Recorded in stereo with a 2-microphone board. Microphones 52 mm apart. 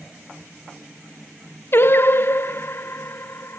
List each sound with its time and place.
1.7 s singing: 45° left (ahead or behind), 0.5 m